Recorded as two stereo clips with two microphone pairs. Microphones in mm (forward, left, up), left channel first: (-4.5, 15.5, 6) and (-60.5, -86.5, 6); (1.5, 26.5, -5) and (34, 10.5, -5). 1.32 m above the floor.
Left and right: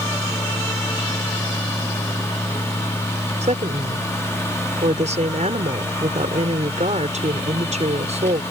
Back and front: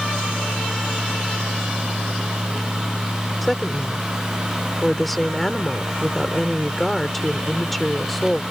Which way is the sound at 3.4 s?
120° right.